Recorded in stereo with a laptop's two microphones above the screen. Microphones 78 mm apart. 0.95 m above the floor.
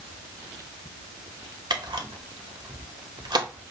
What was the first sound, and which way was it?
A camera shutter, 65° right (ahead or behind).